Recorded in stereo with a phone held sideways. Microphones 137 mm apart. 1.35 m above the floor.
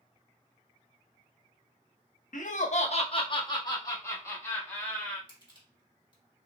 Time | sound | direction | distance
2.3 | laughter | 75° left (ahead or behind) | 0.7 m
5.3 | crushing | 35° left (ahead or behind) | 1.5 m